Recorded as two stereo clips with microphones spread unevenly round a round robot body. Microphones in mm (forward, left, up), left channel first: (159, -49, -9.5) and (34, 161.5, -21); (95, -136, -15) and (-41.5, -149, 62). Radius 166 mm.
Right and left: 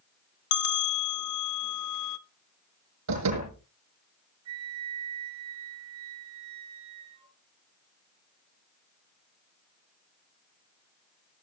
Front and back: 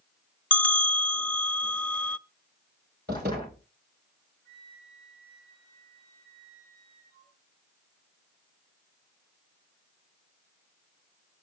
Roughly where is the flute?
Behind left.